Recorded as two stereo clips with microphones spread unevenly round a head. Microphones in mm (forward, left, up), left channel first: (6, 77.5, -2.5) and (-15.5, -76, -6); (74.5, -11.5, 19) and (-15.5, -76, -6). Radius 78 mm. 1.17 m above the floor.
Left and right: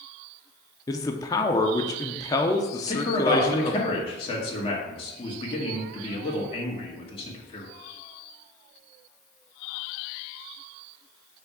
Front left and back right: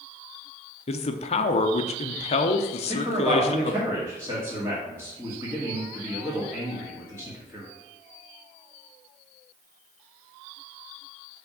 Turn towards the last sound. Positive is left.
turn(degrees=140)